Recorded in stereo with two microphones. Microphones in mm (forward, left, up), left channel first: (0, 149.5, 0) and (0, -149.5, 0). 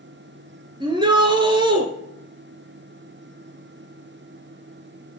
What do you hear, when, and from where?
0.8 s a shout: 15° right (ahead or behind), 2.5 m